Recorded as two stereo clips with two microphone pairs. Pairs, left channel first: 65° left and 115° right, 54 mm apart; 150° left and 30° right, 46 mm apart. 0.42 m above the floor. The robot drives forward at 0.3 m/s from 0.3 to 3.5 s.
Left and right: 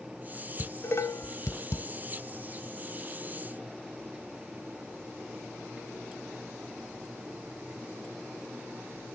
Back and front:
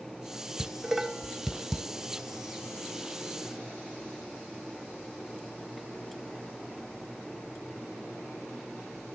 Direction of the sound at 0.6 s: 50° left.